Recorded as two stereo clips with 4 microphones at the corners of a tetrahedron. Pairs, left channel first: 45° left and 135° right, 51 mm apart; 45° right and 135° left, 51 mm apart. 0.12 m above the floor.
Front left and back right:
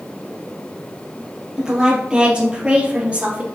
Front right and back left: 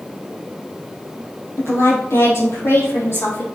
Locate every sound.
1.6 s a woman speaking: 60° right, 3.5 m; by 3.5 s 75° right, 3.5 m